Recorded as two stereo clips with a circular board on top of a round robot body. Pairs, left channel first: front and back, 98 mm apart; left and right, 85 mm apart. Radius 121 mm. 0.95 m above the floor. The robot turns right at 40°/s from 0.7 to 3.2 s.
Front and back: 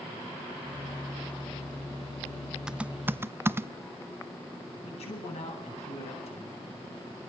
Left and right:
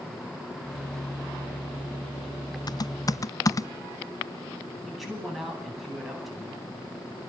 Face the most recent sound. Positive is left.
turn(degrees=0)